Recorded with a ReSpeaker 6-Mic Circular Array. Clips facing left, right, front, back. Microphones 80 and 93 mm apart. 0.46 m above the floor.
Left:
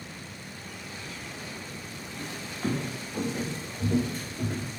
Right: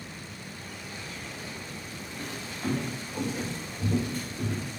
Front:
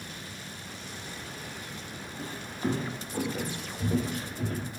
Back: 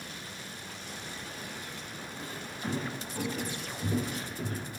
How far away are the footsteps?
About 0.6 m.